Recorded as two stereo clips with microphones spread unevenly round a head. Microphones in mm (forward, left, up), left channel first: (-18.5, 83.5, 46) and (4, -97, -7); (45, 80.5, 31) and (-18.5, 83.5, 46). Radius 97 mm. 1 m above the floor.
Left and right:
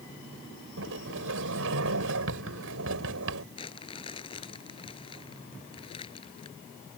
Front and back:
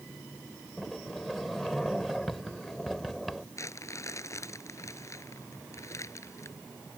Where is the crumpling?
35° left.